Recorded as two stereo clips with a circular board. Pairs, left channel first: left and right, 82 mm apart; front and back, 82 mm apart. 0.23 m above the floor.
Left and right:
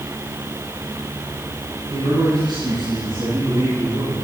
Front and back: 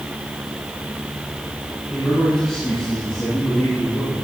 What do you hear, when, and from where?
1.9 s a man speaking: 85° right, 8 m; by 4.1 s 75° right, 8.5 m